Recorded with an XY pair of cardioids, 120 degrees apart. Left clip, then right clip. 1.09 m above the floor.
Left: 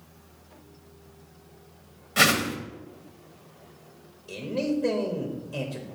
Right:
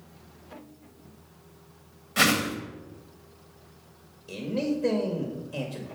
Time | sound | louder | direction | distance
2.2 | a whoosh | left 2 dB | 5° left | 1.3 m
4.3 | a man speaking | left 1 dB | 5° right | 1.5 m